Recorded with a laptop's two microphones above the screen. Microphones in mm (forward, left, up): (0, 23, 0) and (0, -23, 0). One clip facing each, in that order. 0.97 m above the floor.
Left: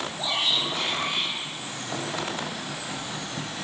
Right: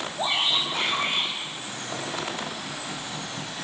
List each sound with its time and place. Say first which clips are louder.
0.2 s a shout: right 2 dB; 30° right (ahead or behind), 4.5 m; by 1.3 s 50° right (ahead or behind), 4.5 m